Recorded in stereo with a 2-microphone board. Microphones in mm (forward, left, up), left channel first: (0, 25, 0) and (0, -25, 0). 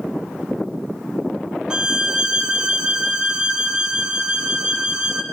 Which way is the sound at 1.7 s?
20° right (ahead or behind).